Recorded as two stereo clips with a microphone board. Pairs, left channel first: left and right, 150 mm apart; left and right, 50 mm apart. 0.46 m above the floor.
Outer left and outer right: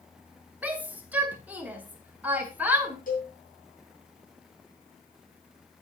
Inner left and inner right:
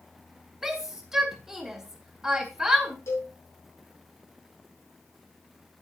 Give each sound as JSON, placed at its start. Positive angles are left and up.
{"t": 0.6, "sound": "a shout", "side_deg": -10, "distance_m": 1.9}
{"t": 3.1, "sound": "a cowbell", "side_deg": 65, "distance_m": 5.0}